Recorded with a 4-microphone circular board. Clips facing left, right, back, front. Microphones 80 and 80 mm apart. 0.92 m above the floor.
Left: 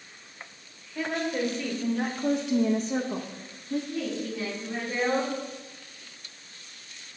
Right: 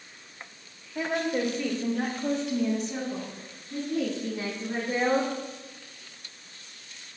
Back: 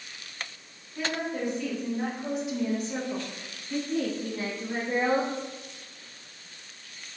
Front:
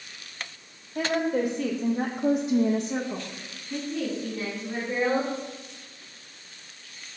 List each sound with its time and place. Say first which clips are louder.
0.9 s a woman speaking: right 1 dB, front 6 dB; 30° right, 1.7 m; by 3.8 s 100° left, 1.5 m
3.9 s a woman speaking: right 2 dB, even; 130° right, 1.8 m